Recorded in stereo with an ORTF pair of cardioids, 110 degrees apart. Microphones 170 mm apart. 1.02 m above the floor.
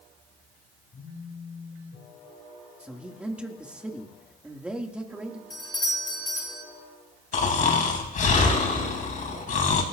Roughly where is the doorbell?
Ahead.